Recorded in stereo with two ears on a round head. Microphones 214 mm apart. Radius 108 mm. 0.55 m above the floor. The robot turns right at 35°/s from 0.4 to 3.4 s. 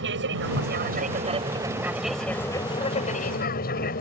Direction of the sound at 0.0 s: 60° right.